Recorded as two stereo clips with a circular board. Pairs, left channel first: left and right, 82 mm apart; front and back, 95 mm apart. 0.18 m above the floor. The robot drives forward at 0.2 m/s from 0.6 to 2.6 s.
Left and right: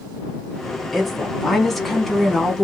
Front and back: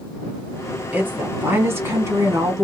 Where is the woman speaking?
170° left, 1.0 m; by 2.6 s 175° left, 1.1 m.